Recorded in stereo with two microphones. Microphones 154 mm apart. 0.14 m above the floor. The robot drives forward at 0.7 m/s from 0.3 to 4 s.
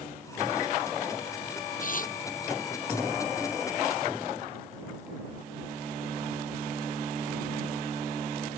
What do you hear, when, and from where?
1.8 s tearing paper: 55° left (ahead or behind); by 2.2 s 60° left (ahead or behind)